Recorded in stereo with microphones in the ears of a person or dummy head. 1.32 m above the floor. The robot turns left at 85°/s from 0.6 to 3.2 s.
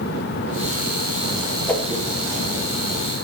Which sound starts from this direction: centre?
A whoosh, at 1.7 s.